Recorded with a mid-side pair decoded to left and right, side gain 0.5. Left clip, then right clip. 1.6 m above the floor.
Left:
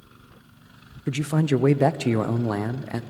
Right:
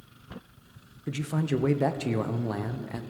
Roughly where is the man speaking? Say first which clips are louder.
Left 6 dB; ahead left.